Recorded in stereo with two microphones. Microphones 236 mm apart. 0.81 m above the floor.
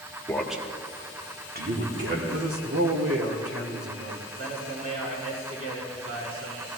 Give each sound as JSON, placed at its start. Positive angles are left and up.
{"t": 0.3, "sound": "a man speaking", "side_deg": 10, "distance_m": 1.6}
{"t": 2.3, "sound": "a man speaking", "side_deg": -75, "distance_m": 2.0}
{"t": 4.4, "sound": "a man speaking", "side_deg": -70, "distance_m": 6.5}